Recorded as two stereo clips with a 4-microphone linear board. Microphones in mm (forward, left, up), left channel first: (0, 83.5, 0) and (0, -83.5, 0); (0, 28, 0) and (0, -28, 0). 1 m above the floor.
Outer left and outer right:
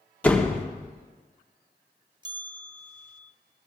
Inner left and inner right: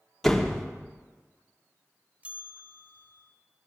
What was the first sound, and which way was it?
A door slam, 10° left (ahead or behind).